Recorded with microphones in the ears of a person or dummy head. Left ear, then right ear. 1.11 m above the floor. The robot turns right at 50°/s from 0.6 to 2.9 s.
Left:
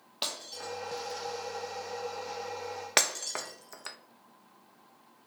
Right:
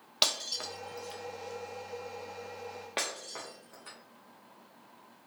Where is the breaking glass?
25° right (ahead or behind), 0.5 m; by 4.0 s 70° left (ahead or behind), 0.5 m.